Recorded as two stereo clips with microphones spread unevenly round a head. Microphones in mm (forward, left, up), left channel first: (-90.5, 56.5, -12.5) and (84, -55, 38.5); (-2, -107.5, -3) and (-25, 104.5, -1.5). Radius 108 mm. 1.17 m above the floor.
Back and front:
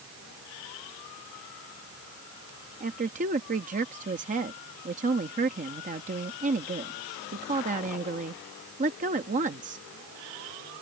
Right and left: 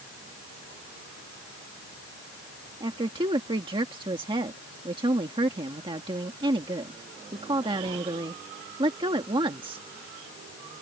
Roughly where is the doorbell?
I don't hear a doorbell.